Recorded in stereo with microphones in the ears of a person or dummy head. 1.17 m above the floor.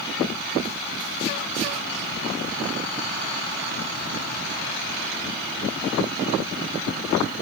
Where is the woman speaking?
I don't hear a woman speaking.